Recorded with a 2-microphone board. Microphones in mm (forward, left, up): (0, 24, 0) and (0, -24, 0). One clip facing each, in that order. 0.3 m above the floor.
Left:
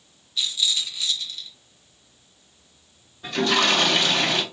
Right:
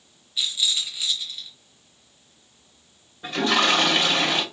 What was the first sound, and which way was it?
A rattle, 15° right (ahead or behind).